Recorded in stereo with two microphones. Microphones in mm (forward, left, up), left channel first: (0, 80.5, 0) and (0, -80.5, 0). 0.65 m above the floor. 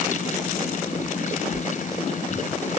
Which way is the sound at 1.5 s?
25° left (ahead or behind).